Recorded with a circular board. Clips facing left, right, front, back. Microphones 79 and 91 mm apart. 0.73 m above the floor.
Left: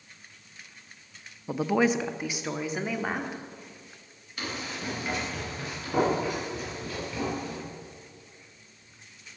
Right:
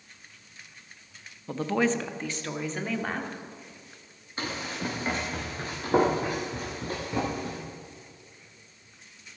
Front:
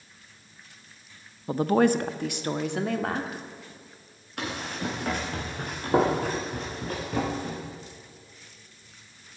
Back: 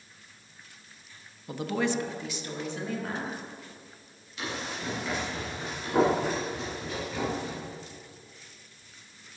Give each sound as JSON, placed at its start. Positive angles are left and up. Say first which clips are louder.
{"t": 1.5, "sound": "a woman speaking", "louder": "left 2 dB, front 8 dB", "azimuth_deg": 20, "distance_m": 0.7}
{"t": 4.4, "sound": "running footsteps", "louder": "right 2 dB, front 3 dB", "azimuth_deg": -30, "distance_m": 6.0}